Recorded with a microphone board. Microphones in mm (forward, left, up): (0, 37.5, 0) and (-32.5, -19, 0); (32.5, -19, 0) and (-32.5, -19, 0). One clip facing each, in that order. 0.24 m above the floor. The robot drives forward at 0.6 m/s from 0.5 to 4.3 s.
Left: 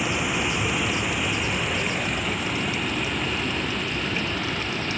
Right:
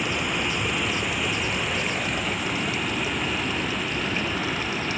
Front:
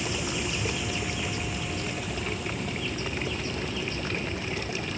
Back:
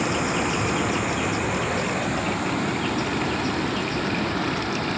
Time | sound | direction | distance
0.0 | running water | 145° left | ?